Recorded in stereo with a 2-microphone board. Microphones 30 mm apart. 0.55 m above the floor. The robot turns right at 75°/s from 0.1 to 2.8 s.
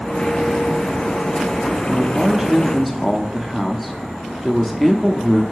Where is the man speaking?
20° right (ahead or behind), 0.7 m; by 5.4 s 5° left (ahead or behind), 0.7 m.